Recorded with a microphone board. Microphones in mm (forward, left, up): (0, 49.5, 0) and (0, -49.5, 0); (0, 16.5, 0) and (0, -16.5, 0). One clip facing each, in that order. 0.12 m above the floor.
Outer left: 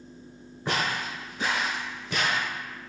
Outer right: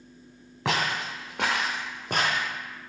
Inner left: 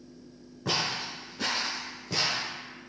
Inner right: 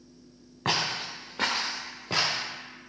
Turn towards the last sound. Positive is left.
turn(degrees=-35)  # may be behind; listen again after turning